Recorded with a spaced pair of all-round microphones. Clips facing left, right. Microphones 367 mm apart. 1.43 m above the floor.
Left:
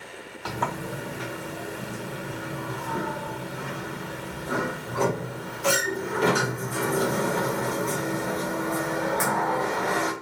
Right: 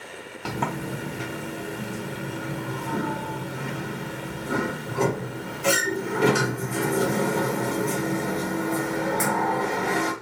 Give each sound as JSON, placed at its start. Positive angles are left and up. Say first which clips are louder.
{"t": 0.5, "sound": "a sliding door", "louder": "right 3 dB", "side_deg": -40, "distance_m": 0.8}